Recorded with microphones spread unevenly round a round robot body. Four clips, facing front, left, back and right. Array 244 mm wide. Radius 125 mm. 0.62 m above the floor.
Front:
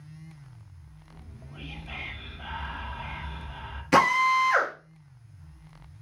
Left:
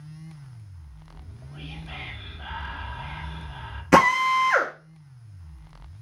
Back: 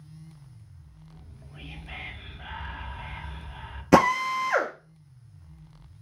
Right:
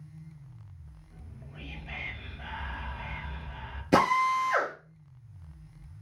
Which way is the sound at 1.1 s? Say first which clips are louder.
Left 3 dB, front 3 dB; 20° left.